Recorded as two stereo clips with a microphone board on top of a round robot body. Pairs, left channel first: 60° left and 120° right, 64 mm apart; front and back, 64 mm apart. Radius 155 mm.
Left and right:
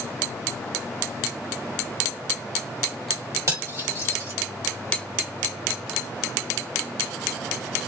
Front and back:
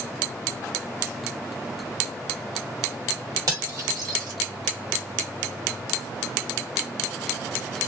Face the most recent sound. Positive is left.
turn(degrees=-160)